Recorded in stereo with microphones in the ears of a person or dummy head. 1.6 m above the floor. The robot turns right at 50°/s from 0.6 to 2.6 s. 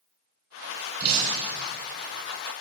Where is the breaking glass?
40° right, 7.5 m; by 1.7 s 5° right, 7.5 m.